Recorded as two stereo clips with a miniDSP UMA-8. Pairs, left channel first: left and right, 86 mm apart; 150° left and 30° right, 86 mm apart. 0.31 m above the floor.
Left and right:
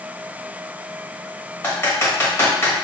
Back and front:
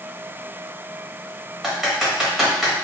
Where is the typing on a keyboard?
55° left, 1.0 m.